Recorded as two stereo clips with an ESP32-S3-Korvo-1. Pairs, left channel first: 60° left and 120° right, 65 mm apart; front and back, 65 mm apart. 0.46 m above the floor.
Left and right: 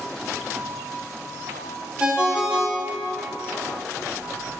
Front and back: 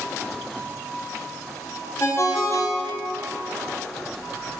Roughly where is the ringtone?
Ahead right.